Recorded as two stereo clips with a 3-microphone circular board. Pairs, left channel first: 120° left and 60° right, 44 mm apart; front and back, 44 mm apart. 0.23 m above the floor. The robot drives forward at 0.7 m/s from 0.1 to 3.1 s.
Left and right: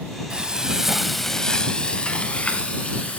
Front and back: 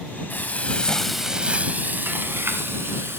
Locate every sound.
0.3 s frying: straight ahead, 0.8 m; by 3.2 s straight behind, 1.5 m